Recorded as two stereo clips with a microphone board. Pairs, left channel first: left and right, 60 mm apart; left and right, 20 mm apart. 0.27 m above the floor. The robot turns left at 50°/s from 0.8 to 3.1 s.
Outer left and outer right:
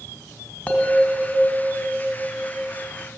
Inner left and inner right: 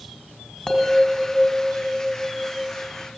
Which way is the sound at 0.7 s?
30° left.